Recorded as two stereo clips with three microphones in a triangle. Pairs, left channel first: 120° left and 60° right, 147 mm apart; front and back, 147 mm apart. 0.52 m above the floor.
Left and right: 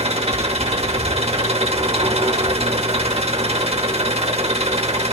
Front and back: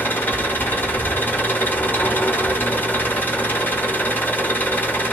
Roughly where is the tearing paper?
No tearing paper in this recording.